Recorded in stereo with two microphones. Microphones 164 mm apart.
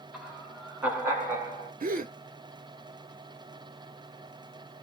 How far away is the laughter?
About 1.9 m.